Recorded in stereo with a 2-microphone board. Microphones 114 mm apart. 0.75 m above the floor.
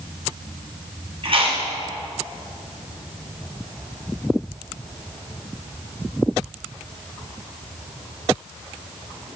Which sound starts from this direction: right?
Chewing, at 1.2 s.